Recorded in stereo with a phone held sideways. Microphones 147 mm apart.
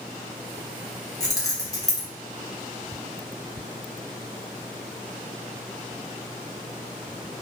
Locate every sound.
1.2 s keys jangling: 20° left (ahead or behind), 0.7 m